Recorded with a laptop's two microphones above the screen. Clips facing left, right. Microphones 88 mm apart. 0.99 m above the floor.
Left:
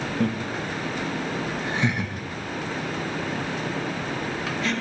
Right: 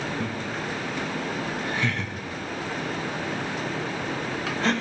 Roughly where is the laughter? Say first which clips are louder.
Left 4 dB; left.